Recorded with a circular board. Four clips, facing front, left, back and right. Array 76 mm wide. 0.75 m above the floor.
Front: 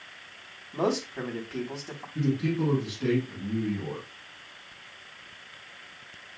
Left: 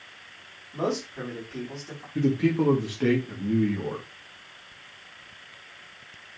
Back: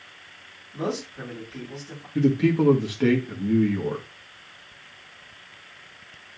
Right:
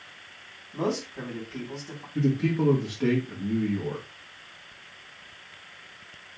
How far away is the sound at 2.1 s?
About 1.7 m.